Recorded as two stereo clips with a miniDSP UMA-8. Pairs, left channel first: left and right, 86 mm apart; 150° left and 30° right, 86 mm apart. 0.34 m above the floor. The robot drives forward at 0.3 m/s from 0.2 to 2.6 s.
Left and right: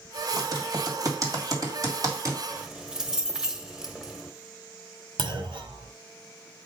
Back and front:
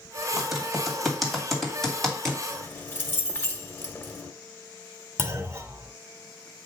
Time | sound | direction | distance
0.4 | typing on a keyboard | 115° right | 2 m
2.5 | keys jangling | 170° right | 0.9 m
5.2 | a clunk | 90° right | 1.2 m